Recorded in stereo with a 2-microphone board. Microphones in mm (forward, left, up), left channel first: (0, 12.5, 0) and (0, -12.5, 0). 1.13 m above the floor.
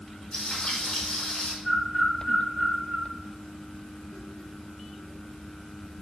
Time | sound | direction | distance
0.3 | frying | 40° left (ahead or behind) | 2.5 m
1.6 | a bird | 35° right (ahead or behind) | 2 m